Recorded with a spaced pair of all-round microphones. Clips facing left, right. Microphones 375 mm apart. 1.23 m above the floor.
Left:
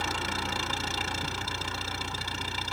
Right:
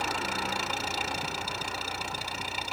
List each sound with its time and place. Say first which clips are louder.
0.0 s an engine running: right 1 dB; 25° left (ahead or behind)